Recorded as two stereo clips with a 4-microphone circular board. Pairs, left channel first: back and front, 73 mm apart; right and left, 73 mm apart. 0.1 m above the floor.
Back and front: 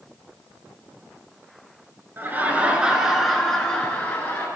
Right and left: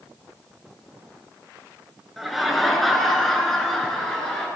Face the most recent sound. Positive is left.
turn(degrees=-165)